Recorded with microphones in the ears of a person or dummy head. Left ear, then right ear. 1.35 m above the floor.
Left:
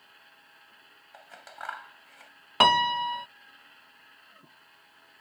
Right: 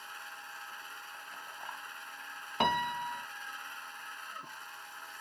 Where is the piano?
45° left (ahead or behind).